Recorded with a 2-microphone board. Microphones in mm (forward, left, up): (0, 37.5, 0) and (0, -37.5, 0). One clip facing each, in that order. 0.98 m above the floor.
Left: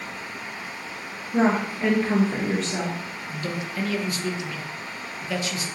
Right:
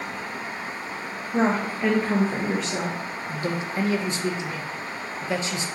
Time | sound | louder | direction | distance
1.3 | a woman speaking | left 1 dB | 5° right (ahead or behind) | 0.7 m
3.3 | a man speaking | right 3 dB | 30° right (ahead or behind) | 0.5 m